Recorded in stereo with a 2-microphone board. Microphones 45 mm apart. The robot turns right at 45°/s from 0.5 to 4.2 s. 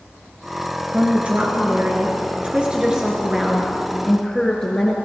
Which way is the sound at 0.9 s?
125° right.